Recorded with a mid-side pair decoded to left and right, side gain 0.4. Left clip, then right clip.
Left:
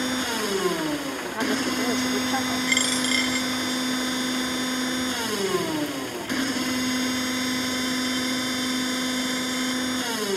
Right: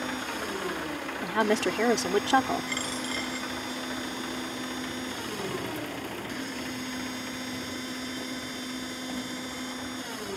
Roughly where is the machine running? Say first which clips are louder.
Left 6 dB; ahead left.